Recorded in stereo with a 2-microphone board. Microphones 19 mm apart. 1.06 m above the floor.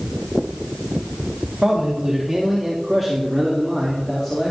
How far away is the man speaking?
About 2 m.